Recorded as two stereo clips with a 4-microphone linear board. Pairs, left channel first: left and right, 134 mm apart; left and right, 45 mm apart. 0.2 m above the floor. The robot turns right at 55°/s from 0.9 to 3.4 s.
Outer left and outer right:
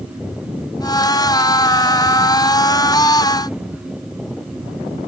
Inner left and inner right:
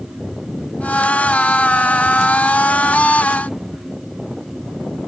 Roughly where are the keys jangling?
I don't hear keys jangling.